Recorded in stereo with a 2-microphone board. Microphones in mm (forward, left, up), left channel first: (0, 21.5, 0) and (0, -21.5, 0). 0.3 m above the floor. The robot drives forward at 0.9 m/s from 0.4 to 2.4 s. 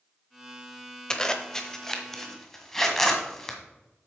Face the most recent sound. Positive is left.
turn(degrees=10)  # may be behind; listen again after turning